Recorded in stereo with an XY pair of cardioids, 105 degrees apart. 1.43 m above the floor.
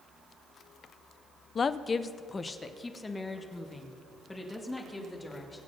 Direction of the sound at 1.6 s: 40° left.